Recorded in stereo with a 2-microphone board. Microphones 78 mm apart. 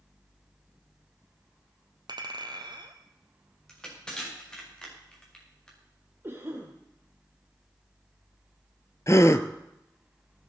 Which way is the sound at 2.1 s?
70° right (ahead or behind).